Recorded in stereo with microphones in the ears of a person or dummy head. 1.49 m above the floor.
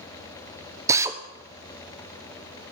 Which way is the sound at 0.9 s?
15° right (ahead or behind).